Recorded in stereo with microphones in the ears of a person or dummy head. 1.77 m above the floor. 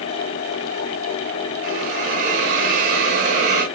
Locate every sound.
1.6 s a hiss: 40° right (ahead or behind), 1.1 m